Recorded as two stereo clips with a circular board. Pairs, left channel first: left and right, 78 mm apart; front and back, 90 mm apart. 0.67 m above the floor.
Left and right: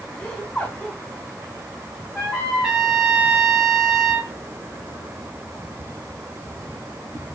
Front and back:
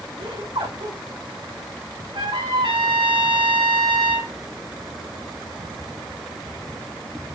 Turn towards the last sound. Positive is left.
turn(degrees=-175)